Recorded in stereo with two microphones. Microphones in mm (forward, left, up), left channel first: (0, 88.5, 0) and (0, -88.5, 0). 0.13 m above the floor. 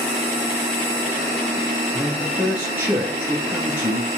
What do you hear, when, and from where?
1.9 s a man speaking: 10° right (ahead or behind), 2 m